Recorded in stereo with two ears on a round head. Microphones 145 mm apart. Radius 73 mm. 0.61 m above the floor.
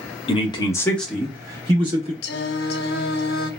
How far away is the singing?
About 0.5 m.